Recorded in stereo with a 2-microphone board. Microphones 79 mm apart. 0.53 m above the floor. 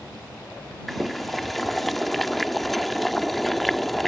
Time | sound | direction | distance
0.9 | boiling | centre (ahead or behind) | ?